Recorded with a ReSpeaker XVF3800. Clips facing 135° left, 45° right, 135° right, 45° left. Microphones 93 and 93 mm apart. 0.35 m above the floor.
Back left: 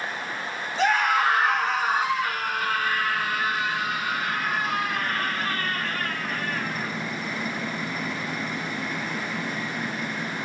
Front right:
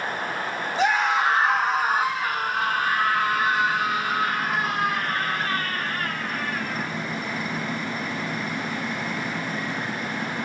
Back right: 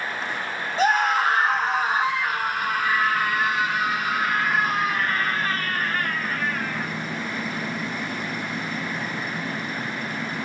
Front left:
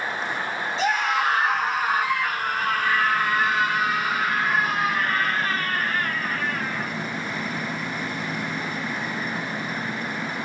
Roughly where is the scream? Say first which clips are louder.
Even, back right 3 dB; behind right.